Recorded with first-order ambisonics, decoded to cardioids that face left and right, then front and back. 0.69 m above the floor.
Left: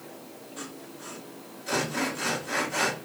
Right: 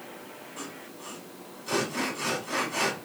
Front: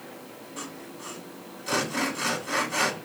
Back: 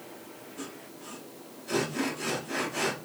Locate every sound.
0.6 s sawing: 10° left, 3 m